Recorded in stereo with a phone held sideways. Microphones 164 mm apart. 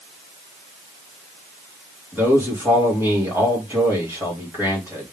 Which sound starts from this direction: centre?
A man speaking, at 2.1 s.